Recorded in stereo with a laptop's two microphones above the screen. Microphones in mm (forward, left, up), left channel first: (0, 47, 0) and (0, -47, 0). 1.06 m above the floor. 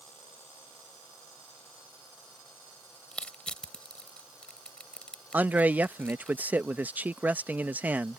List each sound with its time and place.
3.1 s crushing: 10° left (ahead or behind)
5.3 s a man speaking: 20° right (ahead or behind)